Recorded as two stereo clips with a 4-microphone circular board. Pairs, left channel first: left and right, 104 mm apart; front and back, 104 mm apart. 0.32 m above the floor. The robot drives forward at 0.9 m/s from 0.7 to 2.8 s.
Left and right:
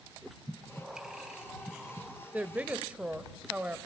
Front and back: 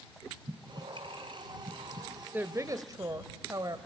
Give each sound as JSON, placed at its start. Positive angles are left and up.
{"t": 0.5, "sound": "breathing", "azimuth_deg": -170, "distance_m": 2.0}
{"t": 2.3, "sound": "a woman speaking", "azimuth_deg": -135, "distance_m": 0.9}